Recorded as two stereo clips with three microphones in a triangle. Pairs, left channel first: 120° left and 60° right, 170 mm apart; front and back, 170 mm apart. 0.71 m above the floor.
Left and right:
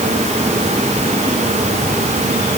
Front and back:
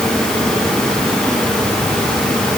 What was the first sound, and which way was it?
Only background noise.